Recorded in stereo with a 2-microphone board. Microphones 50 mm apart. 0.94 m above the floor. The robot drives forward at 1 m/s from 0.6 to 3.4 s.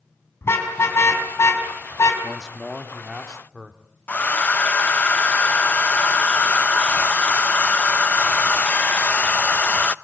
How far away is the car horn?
About 4.5 m.